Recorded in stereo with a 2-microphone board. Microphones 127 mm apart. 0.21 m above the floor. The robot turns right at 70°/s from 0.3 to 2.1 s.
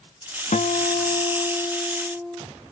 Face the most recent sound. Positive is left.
turn(degrees=-170)